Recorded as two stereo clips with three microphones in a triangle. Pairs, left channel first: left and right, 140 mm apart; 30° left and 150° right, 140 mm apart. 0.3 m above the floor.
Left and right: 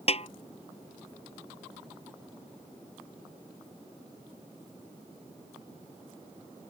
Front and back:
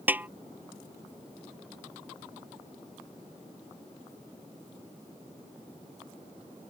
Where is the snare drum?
135° left.